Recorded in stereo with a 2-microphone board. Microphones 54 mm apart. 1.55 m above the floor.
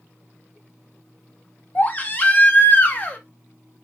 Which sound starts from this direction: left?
A baby crying, at 1.8 s.